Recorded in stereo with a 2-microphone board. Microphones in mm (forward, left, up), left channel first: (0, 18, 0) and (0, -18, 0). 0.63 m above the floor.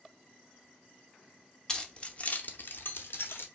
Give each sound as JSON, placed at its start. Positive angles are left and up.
{"t": 1.7, "sound": "keys jangling", "side_deg": 15, "distance_m": 0.9}